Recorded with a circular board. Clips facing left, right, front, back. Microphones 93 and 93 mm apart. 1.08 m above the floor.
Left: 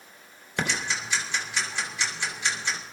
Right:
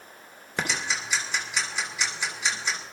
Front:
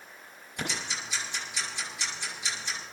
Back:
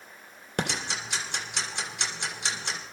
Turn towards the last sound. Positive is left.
turn(degrees=-170)